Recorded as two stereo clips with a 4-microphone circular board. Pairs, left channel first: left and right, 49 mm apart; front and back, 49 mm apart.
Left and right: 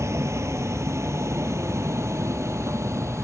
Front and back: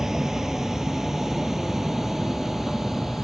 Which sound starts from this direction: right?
A vehicle, at 0.0 s.